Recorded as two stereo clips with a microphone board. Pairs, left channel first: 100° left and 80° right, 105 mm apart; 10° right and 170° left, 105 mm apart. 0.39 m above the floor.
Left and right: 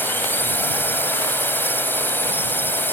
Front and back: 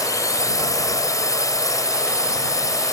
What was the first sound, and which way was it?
A drone, 35° left.